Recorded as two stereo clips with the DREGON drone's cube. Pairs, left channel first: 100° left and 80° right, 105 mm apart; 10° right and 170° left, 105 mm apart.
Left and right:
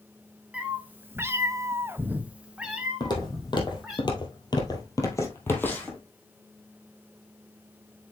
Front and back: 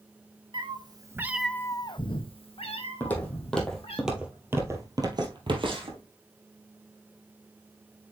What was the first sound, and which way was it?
A cat meowing, 155° right.